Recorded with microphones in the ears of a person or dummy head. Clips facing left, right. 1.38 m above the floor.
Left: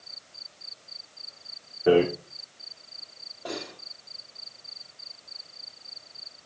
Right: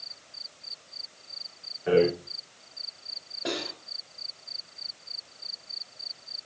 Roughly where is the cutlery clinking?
Right.